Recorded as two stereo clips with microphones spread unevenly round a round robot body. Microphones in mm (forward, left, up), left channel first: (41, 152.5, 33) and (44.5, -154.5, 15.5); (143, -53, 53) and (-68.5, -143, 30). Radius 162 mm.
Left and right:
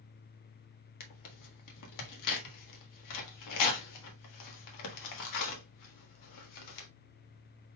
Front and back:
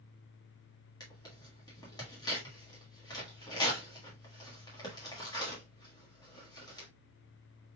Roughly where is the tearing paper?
Left.